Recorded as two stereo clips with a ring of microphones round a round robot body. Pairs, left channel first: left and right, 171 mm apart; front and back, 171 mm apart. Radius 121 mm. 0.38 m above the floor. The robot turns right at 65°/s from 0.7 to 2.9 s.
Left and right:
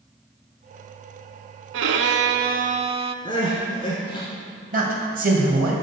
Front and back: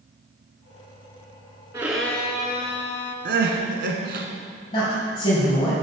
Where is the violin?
105° right, 0.5 m; by 3.1 s 30° right, 0.5 m.